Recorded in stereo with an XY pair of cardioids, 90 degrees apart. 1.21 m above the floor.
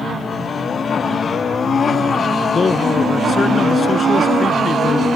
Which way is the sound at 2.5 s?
45° left.